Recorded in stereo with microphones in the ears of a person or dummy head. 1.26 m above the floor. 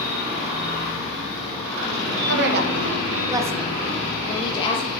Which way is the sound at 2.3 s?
70° right (ahead or behind).